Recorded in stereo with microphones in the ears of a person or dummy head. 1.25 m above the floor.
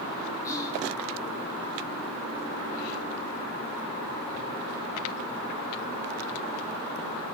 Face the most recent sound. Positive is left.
turn(degrees=20)  # may be behind; listen again after turning